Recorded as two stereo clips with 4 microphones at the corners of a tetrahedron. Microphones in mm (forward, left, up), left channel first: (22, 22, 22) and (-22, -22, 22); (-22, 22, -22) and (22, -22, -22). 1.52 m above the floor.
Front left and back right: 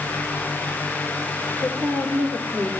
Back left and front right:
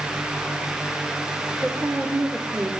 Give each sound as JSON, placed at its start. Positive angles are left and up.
{"t": 1.6, "sound": "a woman speaking", "azimuth_deg": -85, "distance_m": 4.0}